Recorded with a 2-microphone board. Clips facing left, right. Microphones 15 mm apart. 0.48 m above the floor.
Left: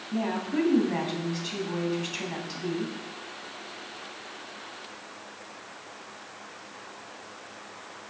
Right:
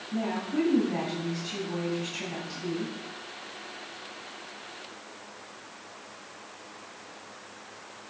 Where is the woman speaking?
30° left (ahead or behind), 3 m.